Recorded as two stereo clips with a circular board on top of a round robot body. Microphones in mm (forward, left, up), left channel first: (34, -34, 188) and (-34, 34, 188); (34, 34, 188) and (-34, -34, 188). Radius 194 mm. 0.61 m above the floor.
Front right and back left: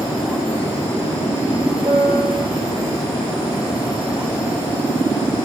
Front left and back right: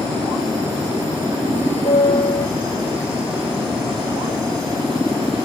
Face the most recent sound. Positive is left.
turn(degrees=90)